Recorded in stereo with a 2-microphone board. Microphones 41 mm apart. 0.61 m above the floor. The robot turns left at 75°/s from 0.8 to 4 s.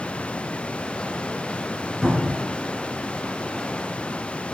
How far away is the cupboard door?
About 2.5 m.